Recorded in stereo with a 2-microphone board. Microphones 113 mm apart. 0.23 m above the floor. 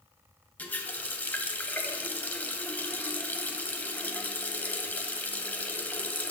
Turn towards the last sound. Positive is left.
turn(degrees=15)  # may be behind; listen again after turning